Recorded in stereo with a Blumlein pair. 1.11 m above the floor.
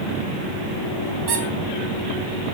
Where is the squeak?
45° right, 3 m.